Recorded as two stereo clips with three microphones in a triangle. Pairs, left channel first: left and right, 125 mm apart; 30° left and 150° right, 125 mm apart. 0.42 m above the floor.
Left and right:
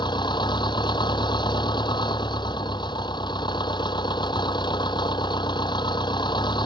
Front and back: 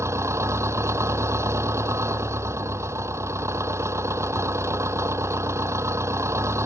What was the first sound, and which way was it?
An engine running, 140° left.